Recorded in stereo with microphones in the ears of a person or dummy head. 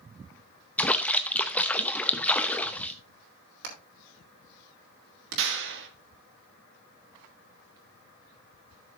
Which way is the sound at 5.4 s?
65° right (ahead or behind).